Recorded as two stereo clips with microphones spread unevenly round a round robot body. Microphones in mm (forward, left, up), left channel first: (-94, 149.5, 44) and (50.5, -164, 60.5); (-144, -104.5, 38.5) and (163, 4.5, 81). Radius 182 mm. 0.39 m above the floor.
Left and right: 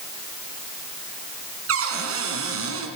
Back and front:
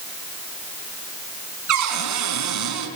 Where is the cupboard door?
15° right, 4.5 m.